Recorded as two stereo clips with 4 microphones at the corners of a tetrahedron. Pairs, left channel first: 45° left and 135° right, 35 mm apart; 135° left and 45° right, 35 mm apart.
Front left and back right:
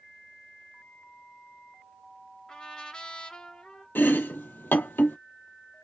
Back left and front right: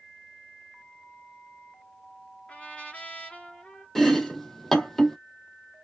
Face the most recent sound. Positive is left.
turn(degrees=55)